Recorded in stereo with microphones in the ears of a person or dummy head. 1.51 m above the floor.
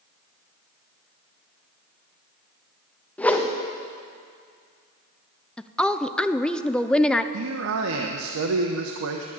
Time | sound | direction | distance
3.2 | a whoosh | 5° left (ahead or behind) | 1.2 m
5.6 | a woman speaking | 5° left (ahead or behind) | 0.6 m
7.3 | a man speaking | 80° right | 1.1 m